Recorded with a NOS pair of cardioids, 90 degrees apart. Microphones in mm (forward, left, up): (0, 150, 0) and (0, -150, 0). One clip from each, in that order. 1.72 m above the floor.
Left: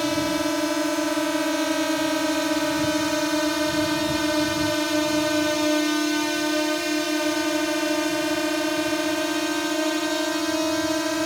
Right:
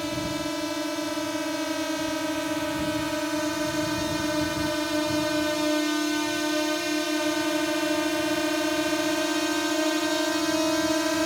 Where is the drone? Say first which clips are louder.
Left 6 dB; 45° left; by 11.3 s 5° left.